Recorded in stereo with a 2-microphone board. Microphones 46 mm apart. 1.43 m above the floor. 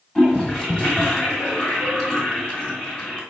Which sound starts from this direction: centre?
A toilet flushing, at 0.1 s.